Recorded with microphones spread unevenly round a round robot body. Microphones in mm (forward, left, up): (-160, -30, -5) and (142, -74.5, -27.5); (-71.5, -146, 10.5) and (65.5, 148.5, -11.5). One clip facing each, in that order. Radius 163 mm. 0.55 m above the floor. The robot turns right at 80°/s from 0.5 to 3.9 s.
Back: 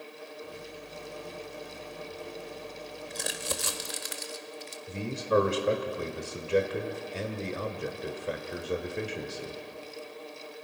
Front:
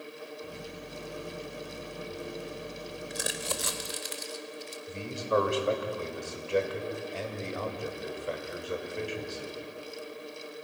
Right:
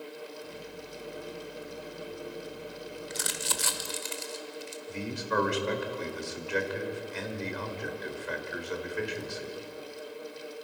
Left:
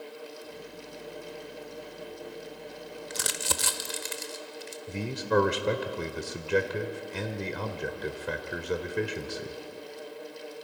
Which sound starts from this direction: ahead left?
Crumpling, at 3.1 s.